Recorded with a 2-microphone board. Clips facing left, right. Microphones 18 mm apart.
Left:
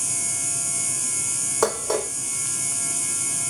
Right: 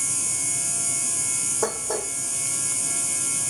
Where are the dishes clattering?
70° left (ahead or behind), 3 m.